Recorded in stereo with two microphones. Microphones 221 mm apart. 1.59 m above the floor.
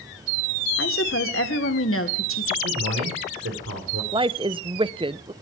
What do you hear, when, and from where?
0.8 s a woman speaking: 70° left (ahead or behind), 1.9 m
2.6 s a man speaking: 85° right, 4.5 m
4.1 s a woman speaking: 25° right (ahead or behind), 0.6 m